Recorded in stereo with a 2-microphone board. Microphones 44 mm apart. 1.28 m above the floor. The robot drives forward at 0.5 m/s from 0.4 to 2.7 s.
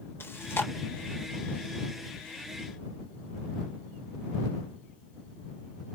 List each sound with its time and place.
0.2 s chewing: 60° left (ahead or behind), 1.1 m; by 0.7 s 55° left (ahead or behind), 1.2 m